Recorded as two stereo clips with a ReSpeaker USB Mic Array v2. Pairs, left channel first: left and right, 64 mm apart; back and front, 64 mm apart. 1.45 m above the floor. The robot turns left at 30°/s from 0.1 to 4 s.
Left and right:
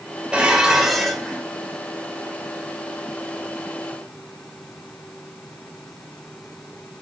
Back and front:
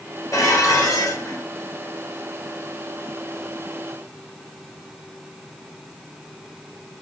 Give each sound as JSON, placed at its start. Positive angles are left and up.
{"t": 0.3, "sound": "dishes clattering", "azimuth_deg": -160, "distance_m": 1.1}